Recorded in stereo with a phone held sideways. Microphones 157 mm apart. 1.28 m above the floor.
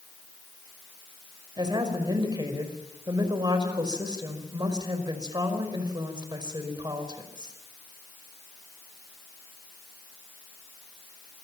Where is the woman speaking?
25° right (ahead or behind), 5 m.